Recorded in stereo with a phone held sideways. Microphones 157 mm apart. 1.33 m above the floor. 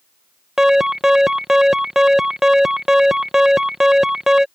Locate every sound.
0.6 s an alarm: 5° right (ahead or behind)